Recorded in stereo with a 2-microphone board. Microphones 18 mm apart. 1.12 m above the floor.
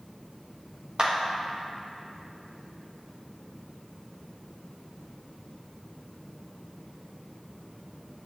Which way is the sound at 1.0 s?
50° right (ahead or behind).